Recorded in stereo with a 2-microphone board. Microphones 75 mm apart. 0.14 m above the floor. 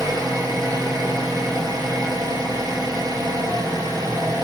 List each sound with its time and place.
0.0 s an engine running: 50° right (ahead or behind), 3 m